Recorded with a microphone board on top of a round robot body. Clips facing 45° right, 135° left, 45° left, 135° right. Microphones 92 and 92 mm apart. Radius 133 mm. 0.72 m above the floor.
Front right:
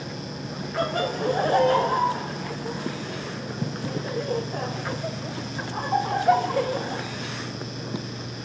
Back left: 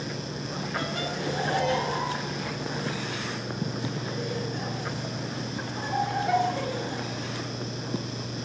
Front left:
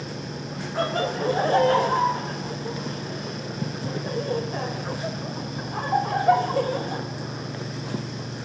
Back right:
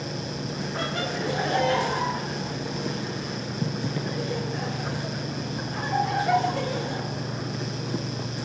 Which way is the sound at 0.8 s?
Straight ahead.